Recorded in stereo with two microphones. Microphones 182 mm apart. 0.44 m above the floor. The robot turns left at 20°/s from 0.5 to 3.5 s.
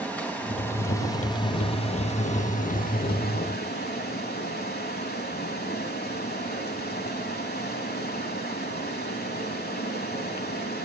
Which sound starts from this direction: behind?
Running water, at 0.0 s.